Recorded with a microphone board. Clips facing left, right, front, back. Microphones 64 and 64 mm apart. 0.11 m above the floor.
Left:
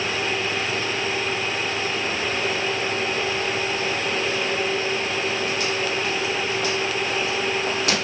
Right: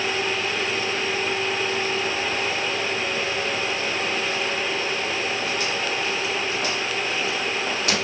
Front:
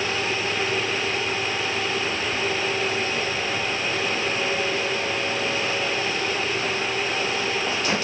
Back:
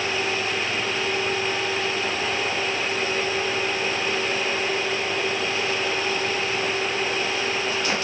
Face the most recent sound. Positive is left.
No sound to turn to.